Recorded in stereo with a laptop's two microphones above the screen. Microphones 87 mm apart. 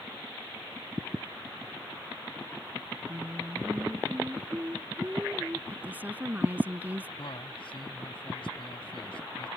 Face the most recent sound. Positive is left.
turn(degrees=75)  # may be behind; listen again after turning